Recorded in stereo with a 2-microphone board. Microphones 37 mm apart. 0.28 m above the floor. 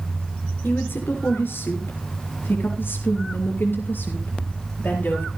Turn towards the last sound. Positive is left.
turn(degrees=55)  # may be behind; listen again after turning